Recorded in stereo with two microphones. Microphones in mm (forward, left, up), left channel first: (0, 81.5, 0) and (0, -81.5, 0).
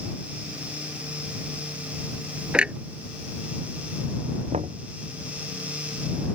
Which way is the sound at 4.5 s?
45° right (ahead or behind).